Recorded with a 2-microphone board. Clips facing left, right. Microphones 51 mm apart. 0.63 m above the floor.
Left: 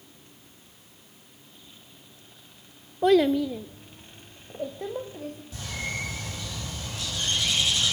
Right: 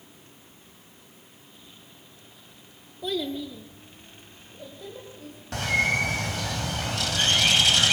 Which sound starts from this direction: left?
A child speaking, at 3.0 s.